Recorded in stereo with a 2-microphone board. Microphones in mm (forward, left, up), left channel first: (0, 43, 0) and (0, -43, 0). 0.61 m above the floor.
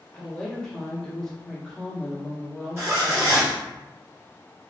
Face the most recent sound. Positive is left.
turn(degrees=-35)  # may be behind; listen again after turning